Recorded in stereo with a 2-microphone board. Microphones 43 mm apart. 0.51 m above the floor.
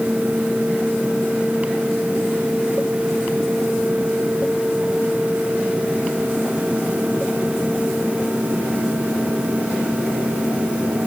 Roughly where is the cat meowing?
I don't hear a cat meowing.